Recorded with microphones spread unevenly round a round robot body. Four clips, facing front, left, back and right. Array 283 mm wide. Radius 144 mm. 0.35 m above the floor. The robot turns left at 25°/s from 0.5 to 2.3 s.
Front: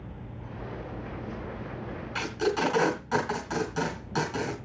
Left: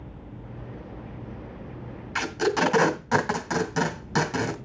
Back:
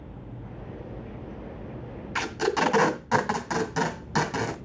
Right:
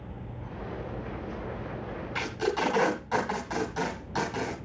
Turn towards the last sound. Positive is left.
turn(degrees=125)